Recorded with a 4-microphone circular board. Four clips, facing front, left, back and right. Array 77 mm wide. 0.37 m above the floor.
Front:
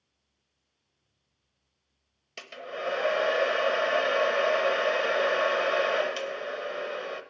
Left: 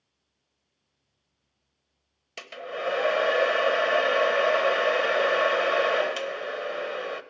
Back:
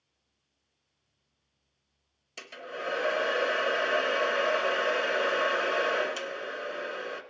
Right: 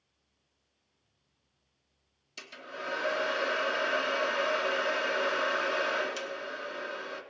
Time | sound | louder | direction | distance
2.4 | a hair dryer | left 8 dB, front 2 dB | 70° left | 1.0 m